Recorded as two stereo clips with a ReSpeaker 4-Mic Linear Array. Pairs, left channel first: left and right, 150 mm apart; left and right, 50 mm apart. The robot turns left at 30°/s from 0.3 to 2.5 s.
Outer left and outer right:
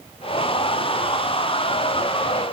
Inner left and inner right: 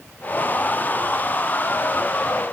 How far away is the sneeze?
No sneeze in this recording.